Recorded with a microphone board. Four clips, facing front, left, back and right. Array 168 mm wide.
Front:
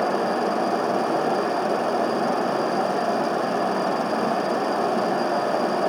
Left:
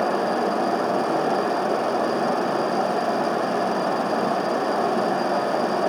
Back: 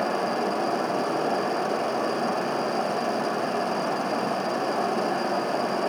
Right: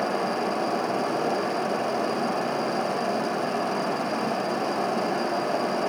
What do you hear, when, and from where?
Only background noise.